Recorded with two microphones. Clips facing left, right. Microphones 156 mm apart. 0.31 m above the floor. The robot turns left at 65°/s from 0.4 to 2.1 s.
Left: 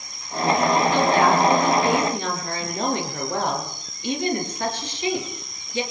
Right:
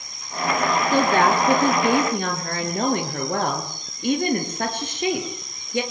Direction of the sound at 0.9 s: 45° right.